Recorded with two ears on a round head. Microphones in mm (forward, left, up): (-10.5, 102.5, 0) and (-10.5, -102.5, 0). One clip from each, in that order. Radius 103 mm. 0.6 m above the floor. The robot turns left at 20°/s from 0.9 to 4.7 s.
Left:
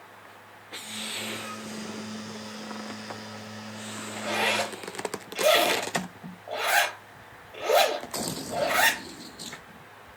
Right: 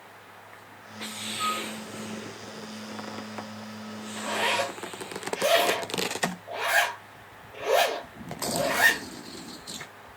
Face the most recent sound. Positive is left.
turn(degrees=20)  # may be behind; listen again after turning